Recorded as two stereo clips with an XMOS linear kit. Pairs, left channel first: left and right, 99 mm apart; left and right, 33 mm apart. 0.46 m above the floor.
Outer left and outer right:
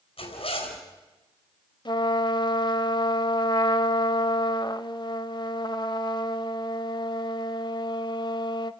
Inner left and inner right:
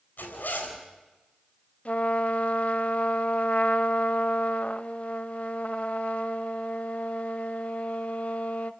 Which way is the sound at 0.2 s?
70° left (ahead or behind).